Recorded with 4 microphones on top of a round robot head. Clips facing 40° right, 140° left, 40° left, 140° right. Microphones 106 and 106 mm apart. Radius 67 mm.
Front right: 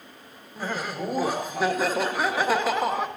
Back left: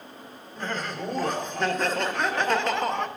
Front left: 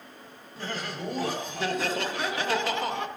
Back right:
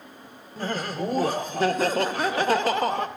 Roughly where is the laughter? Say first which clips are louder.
Front right 1 dB, back right 6 dB; behind right.